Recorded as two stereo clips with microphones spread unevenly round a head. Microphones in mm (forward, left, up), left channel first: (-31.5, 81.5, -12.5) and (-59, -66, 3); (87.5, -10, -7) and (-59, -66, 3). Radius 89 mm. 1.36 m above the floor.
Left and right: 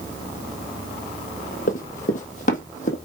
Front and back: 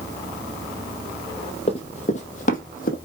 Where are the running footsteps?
65° left, 2 m; by 3.0 s 45° left, 2.5 m.